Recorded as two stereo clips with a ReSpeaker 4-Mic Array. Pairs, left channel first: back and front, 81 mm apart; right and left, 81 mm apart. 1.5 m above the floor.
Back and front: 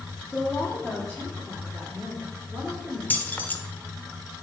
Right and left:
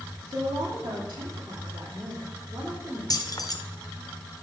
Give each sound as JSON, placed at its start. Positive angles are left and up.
{"t": 0.3, "sound": "a woman speaking", "azimuth_deg": 100, "distance_m": 1.8}
{"t": 3.1, "sound": "keys jangling", "azimuth_deg": -115, "distance_m": 0.8}